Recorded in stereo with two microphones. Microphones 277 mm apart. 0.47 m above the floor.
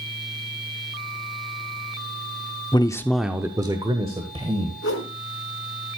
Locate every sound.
2.7 s a man speaking: 15° left (ahead or behind), 0.7 m; by 4.7 s 20° right (ahead or behind), 2 m
4.8 s a whoosh: 55° left (ahead or behind), 1.9 m